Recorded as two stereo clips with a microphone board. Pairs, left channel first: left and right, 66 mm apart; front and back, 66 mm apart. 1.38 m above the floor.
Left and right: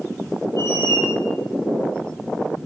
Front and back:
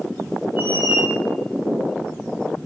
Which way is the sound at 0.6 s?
120° left.